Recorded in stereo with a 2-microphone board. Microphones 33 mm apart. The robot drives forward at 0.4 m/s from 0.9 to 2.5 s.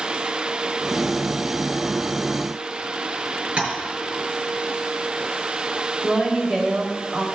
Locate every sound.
3.6 s tapping: 35° right (ahead or behind), 4 m
6.0 s a woman speaking: 5° right (ahead or behind), 3.5 m